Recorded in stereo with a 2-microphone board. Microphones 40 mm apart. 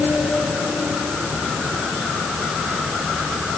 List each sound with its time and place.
Only background noise.